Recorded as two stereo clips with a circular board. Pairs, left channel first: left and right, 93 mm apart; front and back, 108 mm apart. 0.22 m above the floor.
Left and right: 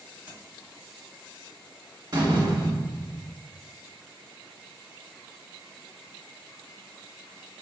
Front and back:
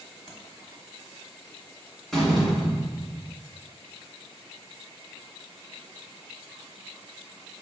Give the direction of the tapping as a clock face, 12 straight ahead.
3 o'clock.